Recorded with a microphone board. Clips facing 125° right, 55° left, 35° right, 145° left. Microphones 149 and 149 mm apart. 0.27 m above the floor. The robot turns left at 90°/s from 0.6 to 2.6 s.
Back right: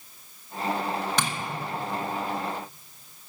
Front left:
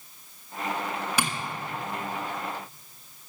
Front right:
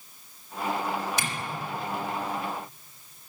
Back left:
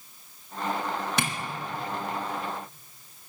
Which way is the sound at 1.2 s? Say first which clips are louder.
Even, back left 3 dB; 135° left.